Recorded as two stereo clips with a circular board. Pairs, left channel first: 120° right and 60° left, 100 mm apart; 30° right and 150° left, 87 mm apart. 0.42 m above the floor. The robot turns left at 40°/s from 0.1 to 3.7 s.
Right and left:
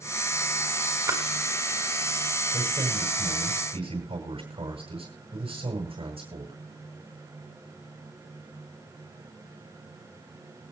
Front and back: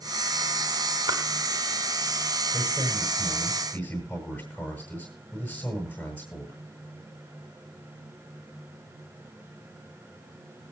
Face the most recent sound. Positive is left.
turn(degrees=40)